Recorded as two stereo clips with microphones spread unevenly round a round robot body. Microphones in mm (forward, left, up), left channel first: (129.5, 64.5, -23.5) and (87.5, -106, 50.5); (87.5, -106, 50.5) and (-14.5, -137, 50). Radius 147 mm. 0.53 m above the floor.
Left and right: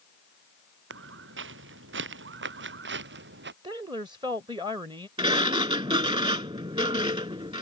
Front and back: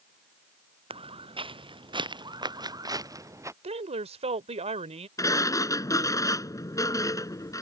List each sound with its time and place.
0.9 s footsteps: 130° right; by 3.5 s 100° right
3.6 s a woman speaking: 175° left
5.2 s a sliding door: 40° right